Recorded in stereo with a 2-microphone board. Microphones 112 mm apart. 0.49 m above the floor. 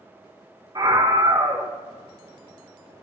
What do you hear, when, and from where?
0.8 s a scream: 45° right (ahead or behind), 1.3 m